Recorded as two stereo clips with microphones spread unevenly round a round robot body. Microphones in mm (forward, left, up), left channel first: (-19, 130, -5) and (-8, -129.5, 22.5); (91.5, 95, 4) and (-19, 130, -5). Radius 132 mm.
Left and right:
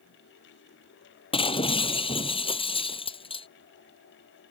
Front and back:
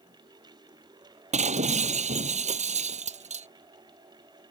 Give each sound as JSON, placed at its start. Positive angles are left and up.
{"t": 1.3, "sound": "breaking glass", "azimuth_deg": 160}